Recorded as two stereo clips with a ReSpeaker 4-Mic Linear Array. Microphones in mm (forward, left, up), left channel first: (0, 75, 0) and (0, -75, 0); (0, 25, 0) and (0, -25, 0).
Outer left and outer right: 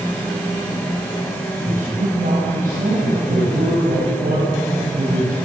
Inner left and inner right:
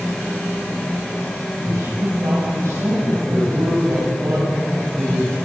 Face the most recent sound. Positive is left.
turn(degrees=-80)